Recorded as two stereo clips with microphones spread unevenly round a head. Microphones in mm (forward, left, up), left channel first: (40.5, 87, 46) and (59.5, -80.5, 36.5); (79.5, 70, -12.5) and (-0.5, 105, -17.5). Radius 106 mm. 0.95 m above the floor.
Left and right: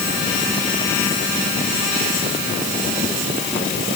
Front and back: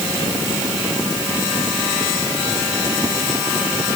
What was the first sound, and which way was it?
Only background noise.